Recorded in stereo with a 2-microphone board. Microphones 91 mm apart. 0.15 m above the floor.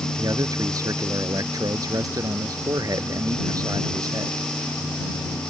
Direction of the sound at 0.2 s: 45° right (ahead or behind).